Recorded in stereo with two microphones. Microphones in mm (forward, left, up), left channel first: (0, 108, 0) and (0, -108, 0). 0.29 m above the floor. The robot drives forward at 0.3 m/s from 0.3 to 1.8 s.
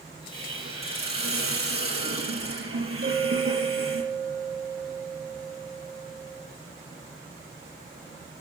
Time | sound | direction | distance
0.3 | a hiss | 75° right (ahead or behind) | 6 m
3.0 | a clink | 45° right (ahead or behind) | 7.5 m